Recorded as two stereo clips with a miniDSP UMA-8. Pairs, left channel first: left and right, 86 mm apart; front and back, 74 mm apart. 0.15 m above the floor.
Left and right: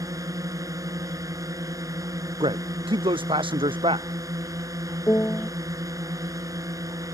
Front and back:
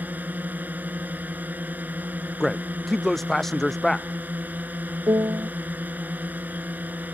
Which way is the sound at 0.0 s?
120° right.